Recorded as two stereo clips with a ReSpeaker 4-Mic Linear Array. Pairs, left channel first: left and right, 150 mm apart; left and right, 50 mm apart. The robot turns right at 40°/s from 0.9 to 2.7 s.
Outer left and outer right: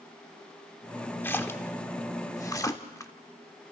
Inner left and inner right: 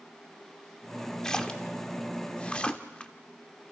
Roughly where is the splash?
Centre.